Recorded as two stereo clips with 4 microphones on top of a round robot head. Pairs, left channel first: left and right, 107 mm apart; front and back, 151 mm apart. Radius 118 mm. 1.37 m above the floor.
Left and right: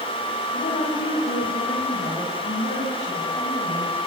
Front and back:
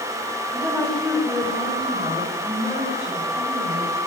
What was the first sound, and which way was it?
A woman speaking, 85° left.